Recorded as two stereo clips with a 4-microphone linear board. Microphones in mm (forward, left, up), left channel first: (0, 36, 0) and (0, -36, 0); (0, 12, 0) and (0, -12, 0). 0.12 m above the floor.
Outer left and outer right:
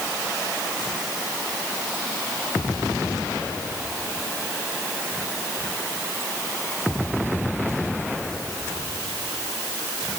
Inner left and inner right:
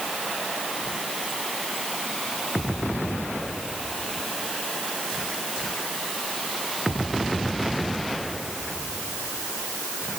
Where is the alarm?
I don't hear an alarm.